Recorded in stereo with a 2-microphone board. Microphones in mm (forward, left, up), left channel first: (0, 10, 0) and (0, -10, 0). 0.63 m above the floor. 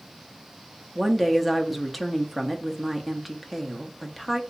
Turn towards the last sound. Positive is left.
turn(degrees=-5)  # may be behind; listen again after turning